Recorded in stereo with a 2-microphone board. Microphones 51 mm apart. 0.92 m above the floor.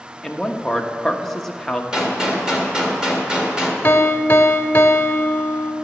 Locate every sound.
0.2 s a man speaking: 5° left (ahead or behind), 1.0 m
1.9 s a gunshot: 15° right (ahead or behind), 1.8 m
3.8 s a piano: 40° left (ahead or behind), 0.8 m